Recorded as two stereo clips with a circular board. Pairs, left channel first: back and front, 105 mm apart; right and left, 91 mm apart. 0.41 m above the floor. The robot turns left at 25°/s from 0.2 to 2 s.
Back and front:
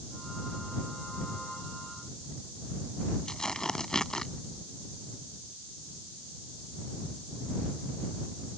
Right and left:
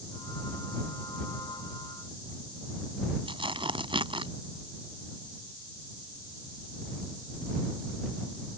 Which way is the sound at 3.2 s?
95° left.